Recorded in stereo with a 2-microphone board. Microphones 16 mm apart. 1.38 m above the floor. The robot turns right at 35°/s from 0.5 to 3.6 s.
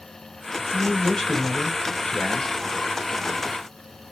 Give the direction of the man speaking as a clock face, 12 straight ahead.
11 o'clock.